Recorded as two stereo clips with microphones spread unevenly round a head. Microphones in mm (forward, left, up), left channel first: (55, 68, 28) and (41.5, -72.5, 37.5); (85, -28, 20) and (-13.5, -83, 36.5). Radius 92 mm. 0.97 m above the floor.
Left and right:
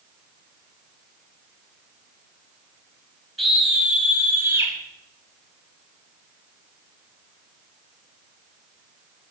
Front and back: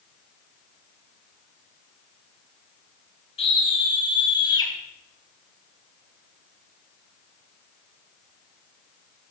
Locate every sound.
3.4 s a scream: 5° right, 5.5 m; by 4.7 s 25° right, 5.5 m